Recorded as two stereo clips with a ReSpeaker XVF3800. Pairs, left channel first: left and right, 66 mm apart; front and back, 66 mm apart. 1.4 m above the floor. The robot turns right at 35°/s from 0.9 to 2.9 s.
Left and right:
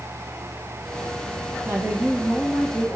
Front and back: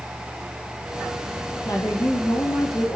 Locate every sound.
1.6 s a woman speaking: 30° right, 1.6 m; by 3.0 s 15° left, 1.6 m